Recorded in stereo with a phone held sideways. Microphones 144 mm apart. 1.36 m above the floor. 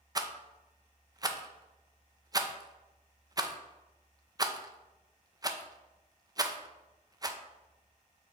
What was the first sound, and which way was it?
A rattle, 25° right (ahead or behind).